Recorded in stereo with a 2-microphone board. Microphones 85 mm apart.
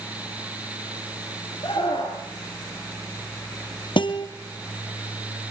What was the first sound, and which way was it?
A scream, 70° left (ahead or behind).